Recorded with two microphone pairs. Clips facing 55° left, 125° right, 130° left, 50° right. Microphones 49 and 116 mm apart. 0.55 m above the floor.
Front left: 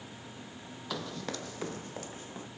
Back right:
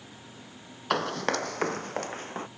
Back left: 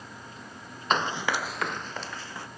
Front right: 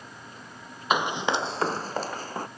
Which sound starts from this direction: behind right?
Running footsteps, at 0.9 s.